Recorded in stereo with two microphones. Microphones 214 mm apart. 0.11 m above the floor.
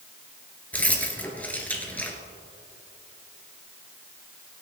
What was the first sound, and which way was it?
Keys jangling, 5° left (ahead or behind).